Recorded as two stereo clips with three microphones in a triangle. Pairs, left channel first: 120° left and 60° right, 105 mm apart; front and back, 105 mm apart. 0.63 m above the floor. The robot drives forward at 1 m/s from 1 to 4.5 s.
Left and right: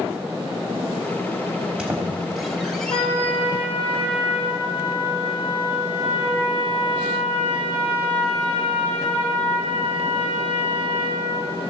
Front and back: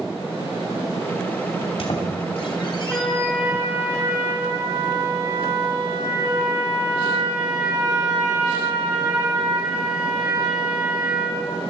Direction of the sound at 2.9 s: 100° left.